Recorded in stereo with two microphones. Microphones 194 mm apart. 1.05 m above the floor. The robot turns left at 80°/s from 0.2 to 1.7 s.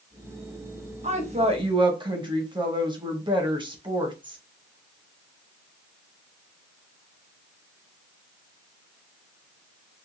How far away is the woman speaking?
About 0.8 m.